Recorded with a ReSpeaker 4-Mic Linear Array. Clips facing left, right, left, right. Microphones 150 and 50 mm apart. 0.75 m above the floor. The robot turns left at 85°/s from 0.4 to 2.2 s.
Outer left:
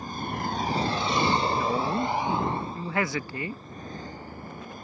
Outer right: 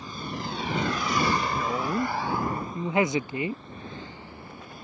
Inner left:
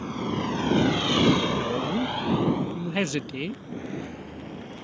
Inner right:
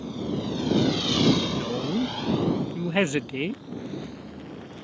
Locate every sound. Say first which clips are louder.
0.0 s a vehicle: outer left 3 dB, inner left 1 dB; 50° left (ahead or behind); by 4.8 s 45° left (ahead or behind)
1.5 s a woman speaking: outer left 1 dB, inner left 1 dB; 20° left; by 3.6 s 35° right